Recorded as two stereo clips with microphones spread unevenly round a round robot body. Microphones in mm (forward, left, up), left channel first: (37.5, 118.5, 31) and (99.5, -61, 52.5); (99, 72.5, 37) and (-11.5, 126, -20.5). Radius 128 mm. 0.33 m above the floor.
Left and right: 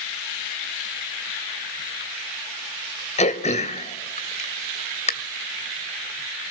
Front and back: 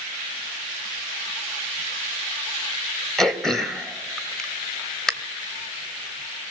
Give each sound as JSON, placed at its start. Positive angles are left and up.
{"t": 3.2, "sound": "throat clearing", "azimuth_deg": 80, "distance_m": 1.7}